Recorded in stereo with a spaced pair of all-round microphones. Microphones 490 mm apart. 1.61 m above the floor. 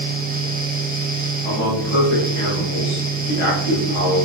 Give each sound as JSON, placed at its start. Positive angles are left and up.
{"t": 0.0, "sound": "a fan", "side_deg": -20, "distance_m": 0.7}
{"t": 1.4, "sound": "a man speaking", "side_deg": 85, "distance_m": 1.5}